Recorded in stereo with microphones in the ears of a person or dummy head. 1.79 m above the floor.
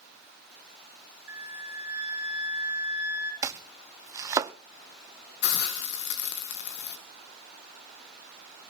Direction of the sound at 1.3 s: 15° right (ahead or behind).